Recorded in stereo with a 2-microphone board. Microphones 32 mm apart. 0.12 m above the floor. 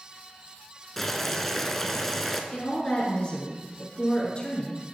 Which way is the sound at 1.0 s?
10° left (ahead or behind).